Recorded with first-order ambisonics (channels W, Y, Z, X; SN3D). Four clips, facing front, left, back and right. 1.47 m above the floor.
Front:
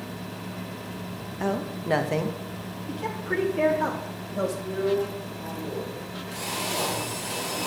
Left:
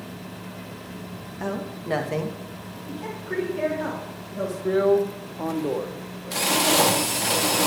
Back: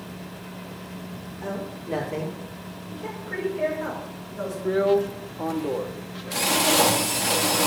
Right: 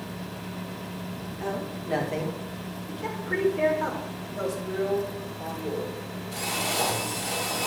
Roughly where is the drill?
Behind left.